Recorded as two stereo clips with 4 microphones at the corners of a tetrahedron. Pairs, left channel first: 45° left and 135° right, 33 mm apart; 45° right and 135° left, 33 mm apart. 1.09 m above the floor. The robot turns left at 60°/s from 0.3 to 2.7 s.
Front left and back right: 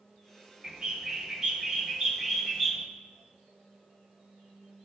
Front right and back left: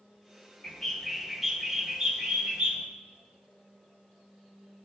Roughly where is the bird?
Right.